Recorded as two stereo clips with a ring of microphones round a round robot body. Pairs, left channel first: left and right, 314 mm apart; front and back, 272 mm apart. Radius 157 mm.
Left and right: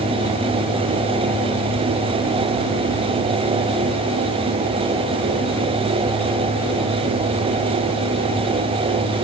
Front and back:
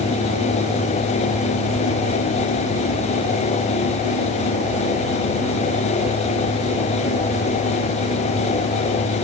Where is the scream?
No scream in this recording.